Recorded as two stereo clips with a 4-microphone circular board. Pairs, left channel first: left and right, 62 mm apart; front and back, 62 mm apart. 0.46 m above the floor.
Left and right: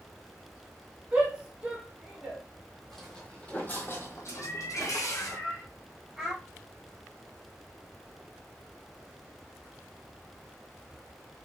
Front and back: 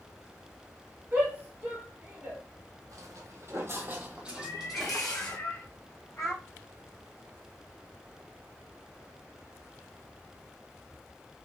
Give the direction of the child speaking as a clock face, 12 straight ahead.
12 o'clock.